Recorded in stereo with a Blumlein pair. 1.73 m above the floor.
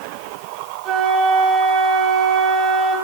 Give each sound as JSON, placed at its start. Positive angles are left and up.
{"t": 0.8, "sound": "a flute", "azimuth_deg": -25, "distance_m": 4.0}